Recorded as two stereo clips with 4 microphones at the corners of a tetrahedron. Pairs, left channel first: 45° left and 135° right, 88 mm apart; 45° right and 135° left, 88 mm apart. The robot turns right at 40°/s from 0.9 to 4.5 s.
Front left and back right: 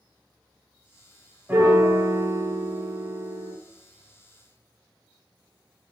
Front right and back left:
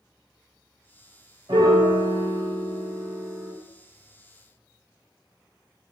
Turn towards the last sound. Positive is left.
turn(degrees=-85)